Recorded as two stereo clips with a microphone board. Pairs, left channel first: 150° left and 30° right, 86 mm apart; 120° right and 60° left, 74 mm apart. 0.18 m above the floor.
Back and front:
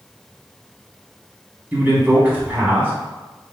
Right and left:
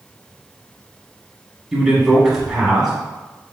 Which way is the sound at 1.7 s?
10° right.